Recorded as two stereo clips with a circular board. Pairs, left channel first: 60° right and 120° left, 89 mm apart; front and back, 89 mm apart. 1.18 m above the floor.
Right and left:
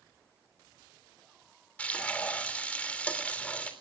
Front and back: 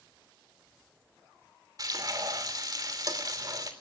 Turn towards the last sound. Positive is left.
turn(degrees=-135)